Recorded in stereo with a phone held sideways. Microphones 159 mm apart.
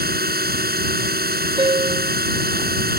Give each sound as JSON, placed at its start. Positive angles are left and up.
{"t": 0.0, "sound": "a drone", "side_deg": -75}
{"t": 1.6, "sound": "a piano", "side_deg": -30}